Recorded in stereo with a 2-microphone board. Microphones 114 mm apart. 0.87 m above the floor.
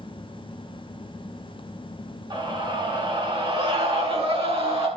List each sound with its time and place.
2.3 s a scream: 45° right (ahead or behind), 8.5 m; by 4.9 s 55° right (ahead or behind), 9 m